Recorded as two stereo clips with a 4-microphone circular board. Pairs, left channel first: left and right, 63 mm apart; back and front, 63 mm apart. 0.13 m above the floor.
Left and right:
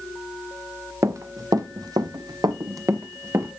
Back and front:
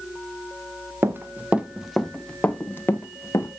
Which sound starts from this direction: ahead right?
Running footsteps, at 1.0 s.